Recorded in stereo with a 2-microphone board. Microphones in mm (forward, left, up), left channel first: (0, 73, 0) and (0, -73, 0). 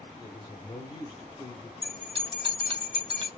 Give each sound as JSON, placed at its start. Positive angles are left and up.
{"t": 0.2, "sound": "a man speaking", "side_deg": 30, "distance_m": 1.2}
{"t": 1.8, "sound": "a bell", "side_deg": -40, "distance_m": 2.0}